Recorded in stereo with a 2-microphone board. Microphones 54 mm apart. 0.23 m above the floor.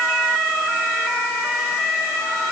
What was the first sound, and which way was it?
Only background noise.